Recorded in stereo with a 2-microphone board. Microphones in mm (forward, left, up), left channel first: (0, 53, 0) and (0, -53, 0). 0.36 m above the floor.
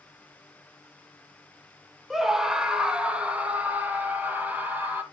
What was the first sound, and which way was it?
A scream, centre (ahead or behind).